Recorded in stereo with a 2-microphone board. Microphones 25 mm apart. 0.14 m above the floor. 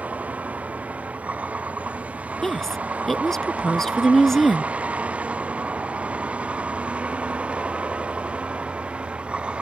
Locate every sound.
0.0 s a vehicle: 70° right (ahead or behind); by 9.6 s 45° right (ahead or behind)
2.4 s a woman speaking: 15° left (ahead or behind)